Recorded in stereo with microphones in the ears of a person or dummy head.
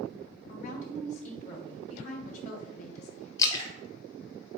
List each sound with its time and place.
0.5 s a woman speaking: 50° left (ahead or behind), 1.2 m
3.4 s a splash: 25° left (ahead or behind), 0.8 m